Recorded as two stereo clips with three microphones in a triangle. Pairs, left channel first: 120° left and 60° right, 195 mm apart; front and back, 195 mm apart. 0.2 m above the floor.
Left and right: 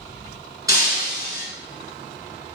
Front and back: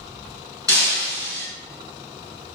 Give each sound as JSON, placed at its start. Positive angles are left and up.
{"t": 0.7, "sound": "breaking glass", "azimuth_deg": 10, "distance_m": 1.3}